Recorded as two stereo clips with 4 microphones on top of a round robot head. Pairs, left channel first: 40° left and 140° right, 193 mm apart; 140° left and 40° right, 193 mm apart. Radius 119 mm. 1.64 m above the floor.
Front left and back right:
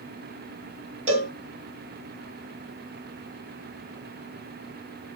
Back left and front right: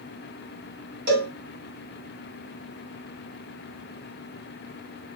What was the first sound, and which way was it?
A cowbell, 85° right.